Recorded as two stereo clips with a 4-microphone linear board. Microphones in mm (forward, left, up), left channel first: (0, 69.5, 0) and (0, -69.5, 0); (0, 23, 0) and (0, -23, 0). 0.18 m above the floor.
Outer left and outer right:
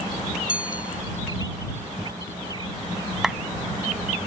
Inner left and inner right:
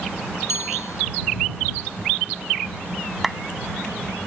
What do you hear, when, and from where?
0.5 s a bicycle bell: 85° left
3.2 s a clap: 5° right (ahead or behind)